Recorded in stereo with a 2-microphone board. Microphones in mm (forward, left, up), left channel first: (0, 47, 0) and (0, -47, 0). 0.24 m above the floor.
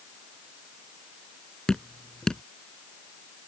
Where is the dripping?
5° left (ahead or behind).